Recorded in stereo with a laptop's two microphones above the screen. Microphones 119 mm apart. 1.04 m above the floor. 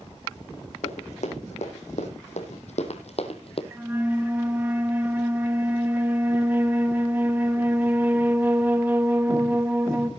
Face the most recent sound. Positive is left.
turn(degrees=-15)  # may be behind; listen again after turning